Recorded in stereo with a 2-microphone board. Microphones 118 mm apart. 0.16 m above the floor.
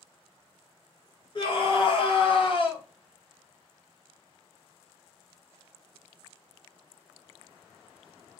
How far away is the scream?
About 3 m.